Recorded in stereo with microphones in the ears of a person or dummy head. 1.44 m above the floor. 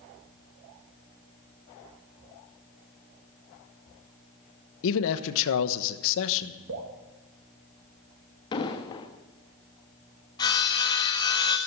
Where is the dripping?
65° right (ahead or behind), 2.5 m.